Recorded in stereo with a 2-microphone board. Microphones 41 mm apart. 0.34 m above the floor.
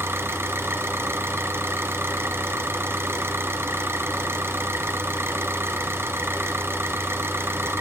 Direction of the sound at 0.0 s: 75° right (ahead or behind).